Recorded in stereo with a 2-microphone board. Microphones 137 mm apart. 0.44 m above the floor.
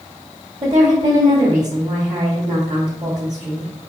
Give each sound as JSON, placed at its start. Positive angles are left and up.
{"t": 0.6, "sound": "a woman speaking", "side_deg": -50, "distance_m": 1.2}